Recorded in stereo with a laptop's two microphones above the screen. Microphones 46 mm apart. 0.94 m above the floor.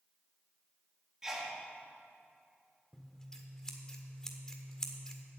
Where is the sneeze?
10° right (ahead or behind), 1.5 m.